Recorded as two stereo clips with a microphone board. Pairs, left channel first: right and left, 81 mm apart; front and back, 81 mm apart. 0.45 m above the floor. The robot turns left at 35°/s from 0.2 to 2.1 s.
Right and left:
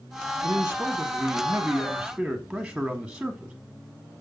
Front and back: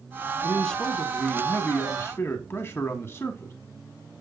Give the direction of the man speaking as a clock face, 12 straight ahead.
10 o'clock.